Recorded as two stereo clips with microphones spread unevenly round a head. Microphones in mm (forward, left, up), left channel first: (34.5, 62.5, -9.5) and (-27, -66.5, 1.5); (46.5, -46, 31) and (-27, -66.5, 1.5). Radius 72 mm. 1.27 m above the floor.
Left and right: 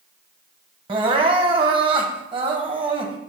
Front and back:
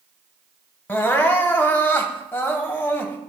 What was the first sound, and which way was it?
Crying, 60° right.